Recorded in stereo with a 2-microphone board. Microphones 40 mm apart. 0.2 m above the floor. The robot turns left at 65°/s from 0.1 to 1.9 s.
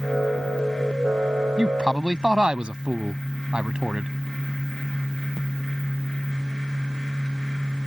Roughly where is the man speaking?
Right.